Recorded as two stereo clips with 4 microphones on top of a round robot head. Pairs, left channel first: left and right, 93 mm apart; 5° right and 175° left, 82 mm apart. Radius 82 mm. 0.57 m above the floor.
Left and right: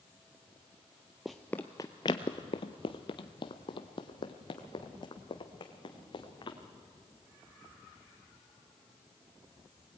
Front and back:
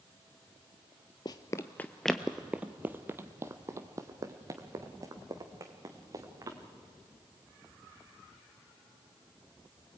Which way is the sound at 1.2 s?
5° right.